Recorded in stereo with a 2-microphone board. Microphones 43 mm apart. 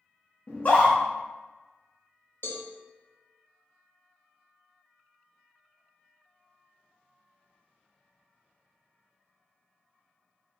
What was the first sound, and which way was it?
A scream, 40° left (ahead or behind).